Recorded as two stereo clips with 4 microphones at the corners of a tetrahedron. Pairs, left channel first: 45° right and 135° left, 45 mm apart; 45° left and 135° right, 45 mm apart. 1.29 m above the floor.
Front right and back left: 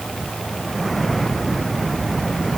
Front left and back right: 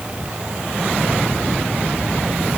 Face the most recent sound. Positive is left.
No sound to turn to.